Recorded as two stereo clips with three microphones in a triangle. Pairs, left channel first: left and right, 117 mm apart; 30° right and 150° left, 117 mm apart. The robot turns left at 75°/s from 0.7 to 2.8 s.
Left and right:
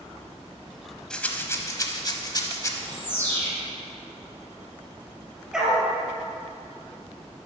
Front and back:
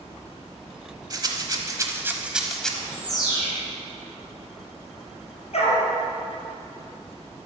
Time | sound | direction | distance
1.1 | a rattle | 170° left | 1.0 m
2.7 | a bird | 30° left | 3.5 m
5.5 | a dog barking | 5° right | 2.5 m